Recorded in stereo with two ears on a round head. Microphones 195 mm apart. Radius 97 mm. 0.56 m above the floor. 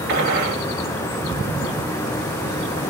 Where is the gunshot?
50° right (ahead or behind), 1.5 m.